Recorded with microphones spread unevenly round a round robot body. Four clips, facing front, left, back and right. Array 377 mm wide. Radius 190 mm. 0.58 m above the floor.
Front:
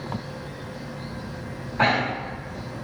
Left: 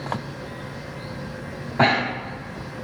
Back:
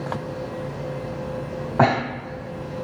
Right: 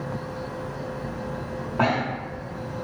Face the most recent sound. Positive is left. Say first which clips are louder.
# left 3 dB, back 3 dB
turn(degrees=165)